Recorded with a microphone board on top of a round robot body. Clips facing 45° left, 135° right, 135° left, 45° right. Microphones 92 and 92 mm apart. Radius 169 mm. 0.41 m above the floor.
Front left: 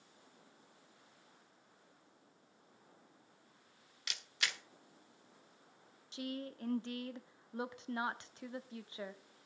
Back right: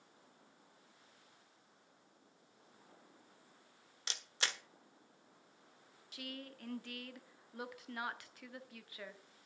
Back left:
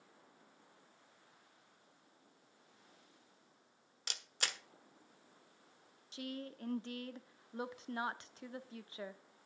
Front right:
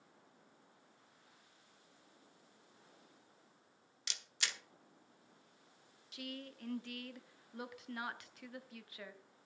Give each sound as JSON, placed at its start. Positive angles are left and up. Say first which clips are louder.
{"t": 4.1, "sound": "a camera shutter", "louder": "even, back left 2 dB", "azimuth_deg": 170, "distance_m": 1.4}
{"t": 6.1, "sound": "a woman speaking", "louder": "front left 6 dB, back left 3 dB", "azimuth_deg": 95, "distance_m": 1.3}